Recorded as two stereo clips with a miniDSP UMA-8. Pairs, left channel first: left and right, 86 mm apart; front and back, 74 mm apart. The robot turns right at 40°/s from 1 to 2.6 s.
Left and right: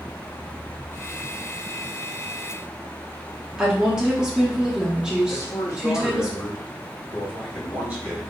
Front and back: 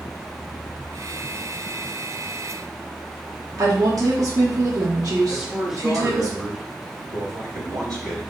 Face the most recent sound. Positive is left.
turn(degrees=-155)